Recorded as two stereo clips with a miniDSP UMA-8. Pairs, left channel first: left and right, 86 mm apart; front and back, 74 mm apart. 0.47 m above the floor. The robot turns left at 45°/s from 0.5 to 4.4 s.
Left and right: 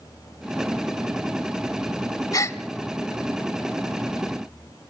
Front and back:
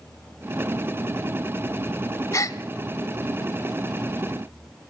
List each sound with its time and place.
2.3 s a gasp: 45° left, 0.9 m; by 2.6 s 30° left, 0.9 m